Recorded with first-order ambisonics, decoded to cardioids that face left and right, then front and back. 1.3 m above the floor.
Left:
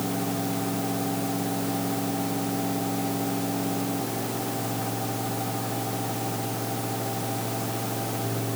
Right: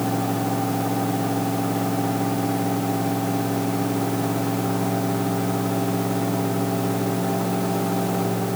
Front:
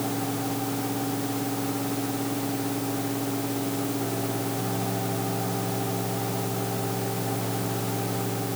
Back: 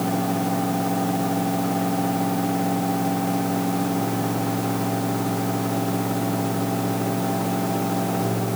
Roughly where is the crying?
I don't hear crying.